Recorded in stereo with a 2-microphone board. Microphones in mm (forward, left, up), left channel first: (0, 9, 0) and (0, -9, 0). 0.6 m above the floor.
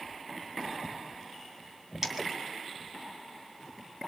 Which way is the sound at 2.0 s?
25° right (ahead or behind).